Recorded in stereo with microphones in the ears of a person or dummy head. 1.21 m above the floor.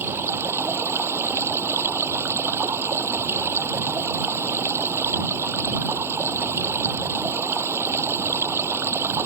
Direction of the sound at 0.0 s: 15° right (ahead or behind).